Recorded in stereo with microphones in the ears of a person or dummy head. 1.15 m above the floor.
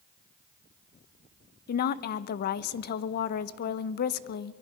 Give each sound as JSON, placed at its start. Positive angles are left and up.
{"t": 1.7, "sound": "a woman speaking", "side_deg": 55, "distance_m": 0.6}